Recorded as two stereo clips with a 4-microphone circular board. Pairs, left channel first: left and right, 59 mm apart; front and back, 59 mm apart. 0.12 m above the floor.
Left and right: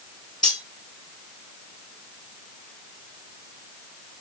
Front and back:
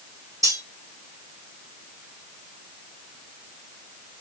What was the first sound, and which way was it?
Cutlery clinking, 165° left.